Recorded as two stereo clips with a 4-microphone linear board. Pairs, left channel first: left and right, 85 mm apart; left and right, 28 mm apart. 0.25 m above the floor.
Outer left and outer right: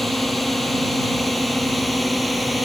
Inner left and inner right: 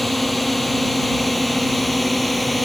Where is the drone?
Centre (ahead or behind).